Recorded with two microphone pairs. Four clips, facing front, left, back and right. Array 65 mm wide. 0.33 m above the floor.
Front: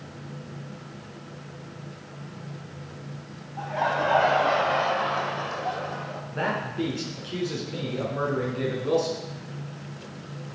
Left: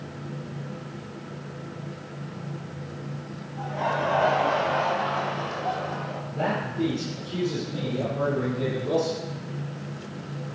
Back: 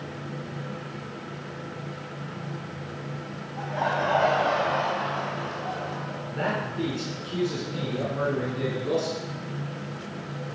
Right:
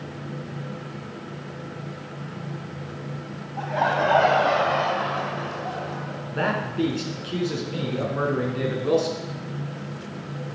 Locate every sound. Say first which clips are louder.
3.6 s laughter: right 4 dB, front 1 dB; 85° right, 2.5 m; by 6.2 s 35° left, 1.6 m
6.3 s a man speaking: right 3 dB, even; 75° right, 3.5 m